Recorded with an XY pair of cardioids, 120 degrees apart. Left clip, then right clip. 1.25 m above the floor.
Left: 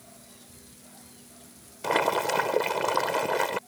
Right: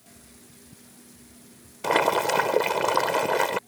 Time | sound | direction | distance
1.8 | boiling | 15° right | ?